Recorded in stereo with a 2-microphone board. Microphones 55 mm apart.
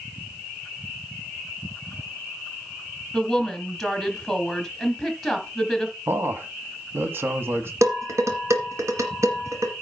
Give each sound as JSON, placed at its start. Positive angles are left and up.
{"t": 3.1, "sound": "a woman speaking", "side_deg": 0, "distance_m": 2.5}
{"t": 6.1, "sound": "a man speaking", "side_deg": -45, "distance_m": 1.4}
{"t": 7.8, "sound": "dishes clattering", "side_deg": -65, "distance_m": 2.0}